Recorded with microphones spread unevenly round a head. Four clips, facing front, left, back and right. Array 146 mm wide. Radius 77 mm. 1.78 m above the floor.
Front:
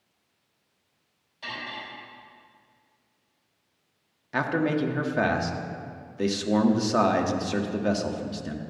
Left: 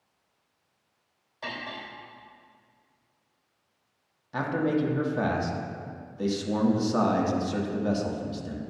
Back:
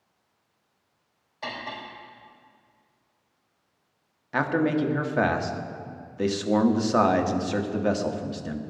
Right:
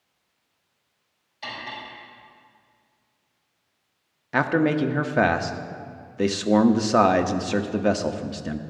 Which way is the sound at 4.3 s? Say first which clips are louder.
Right 5 dB, back 2 dB; 80° right.